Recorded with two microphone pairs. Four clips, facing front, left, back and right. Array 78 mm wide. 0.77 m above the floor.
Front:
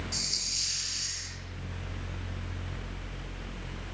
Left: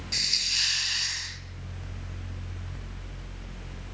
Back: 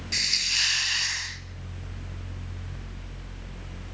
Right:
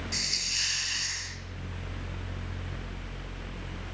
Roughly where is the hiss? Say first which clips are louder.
Left 1 dB, back 9 dB; behind.